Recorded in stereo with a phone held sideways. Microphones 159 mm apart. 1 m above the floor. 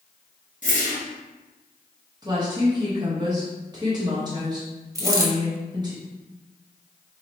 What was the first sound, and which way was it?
A whoosh, 50° left (ahead or behind).